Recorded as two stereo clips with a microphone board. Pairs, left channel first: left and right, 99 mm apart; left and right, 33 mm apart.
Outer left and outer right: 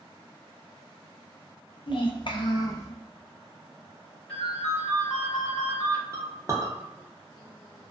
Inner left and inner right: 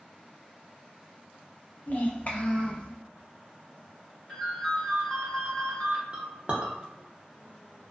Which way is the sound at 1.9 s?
55° left (ahead or behind).